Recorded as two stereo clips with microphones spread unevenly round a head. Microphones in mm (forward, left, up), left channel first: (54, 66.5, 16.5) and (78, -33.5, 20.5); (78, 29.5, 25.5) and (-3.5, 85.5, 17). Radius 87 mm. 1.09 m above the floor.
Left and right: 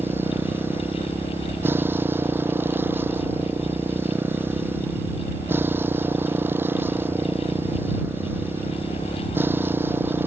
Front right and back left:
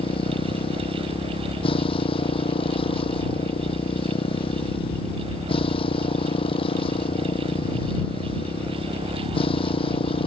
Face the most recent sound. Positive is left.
turn(degrees=-10)